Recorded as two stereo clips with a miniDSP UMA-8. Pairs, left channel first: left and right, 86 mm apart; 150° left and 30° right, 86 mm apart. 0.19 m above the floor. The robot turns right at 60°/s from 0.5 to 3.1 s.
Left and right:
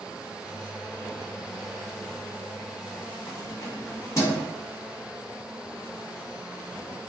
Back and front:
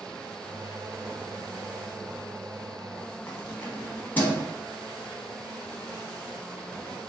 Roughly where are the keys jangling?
Left.